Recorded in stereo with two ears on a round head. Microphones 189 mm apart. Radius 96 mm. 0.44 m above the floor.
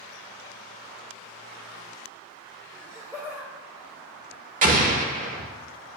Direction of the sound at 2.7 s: 15° right (ahead or behind).